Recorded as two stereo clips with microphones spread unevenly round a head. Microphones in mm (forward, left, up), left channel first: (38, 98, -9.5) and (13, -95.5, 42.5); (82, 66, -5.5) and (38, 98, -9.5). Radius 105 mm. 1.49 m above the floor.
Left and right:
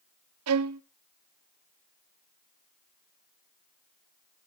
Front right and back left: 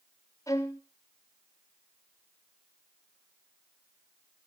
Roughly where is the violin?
Right.